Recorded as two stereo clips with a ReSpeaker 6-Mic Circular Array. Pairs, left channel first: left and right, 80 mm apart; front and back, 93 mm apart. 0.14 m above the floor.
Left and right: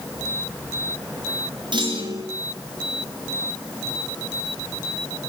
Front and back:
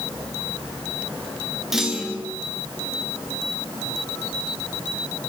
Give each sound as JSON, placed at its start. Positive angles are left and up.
{"t": 1.7, "sound": "a clunk", "azimuth_deg": -95, "distance_m": 3.0}